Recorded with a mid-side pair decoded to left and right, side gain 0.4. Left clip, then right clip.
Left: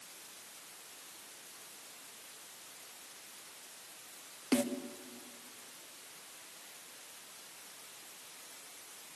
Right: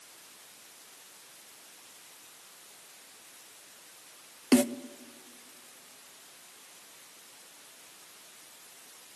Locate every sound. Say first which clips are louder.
4.5 s a snare drum: right 8 dB; 60° right, 0.9 m